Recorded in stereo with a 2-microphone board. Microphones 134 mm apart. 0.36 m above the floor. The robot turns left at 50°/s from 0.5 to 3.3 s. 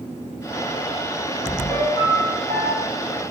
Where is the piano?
10° right, 1.8 m; by 2.9 s 70° right, 1.8 m.